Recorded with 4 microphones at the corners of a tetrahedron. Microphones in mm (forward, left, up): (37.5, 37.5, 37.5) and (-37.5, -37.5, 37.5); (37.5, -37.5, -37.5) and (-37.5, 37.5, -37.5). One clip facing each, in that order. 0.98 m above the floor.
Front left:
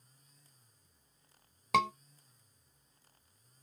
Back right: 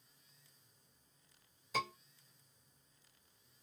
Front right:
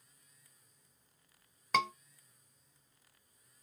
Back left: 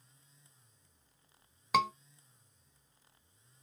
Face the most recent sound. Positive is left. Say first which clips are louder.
# front left 10 dB, back left 3 dB
turn(degrees=55)